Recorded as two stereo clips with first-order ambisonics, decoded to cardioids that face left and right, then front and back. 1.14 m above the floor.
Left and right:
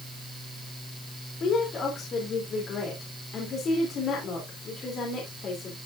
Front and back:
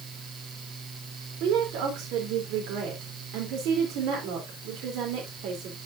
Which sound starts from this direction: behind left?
A woman speaking, at 1.4 s.